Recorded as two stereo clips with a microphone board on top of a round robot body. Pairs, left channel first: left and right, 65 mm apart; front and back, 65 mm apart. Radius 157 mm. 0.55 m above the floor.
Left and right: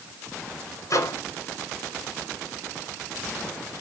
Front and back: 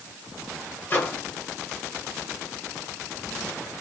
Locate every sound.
0.9 s a microwave: 55° left, 3 m